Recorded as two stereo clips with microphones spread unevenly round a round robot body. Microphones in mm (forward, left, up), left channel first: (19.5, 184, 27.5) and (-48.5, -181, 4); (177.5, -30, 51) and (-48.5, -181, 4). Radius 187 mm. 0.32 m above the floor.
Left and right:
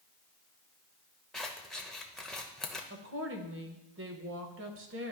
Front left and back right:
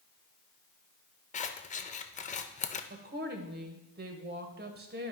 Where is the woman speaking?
135° right, 1.2 m.